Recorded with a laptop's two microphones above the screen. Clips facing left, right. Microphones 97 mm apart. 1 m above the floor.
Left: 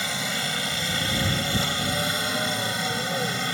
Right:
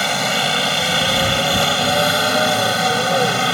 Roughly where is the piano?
I don't hear a piano.